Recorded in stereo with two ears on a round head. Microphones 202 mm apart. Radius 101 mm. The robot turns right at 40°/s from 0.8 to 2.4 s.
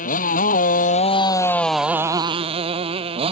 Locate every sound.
0.0 s a motorcycle: 140° left; by 3.3 s 155° right